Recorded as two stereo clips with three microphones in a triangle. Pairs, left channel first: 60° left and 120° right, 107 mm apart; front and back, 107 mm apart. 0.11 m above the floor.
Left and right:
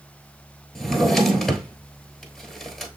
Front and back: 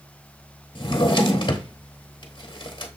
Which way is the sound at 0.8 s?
30° right.